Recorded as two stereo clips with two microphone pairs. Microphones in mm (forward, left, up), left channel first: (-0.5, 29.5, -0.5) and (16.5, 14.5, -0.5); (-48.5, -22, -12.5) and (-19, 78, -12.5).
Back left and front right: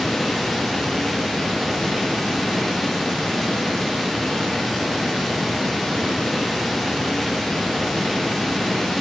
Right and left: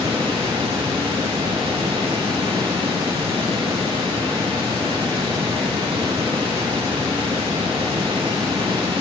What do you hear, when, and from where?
0.0 s running water: 50° left, 9 m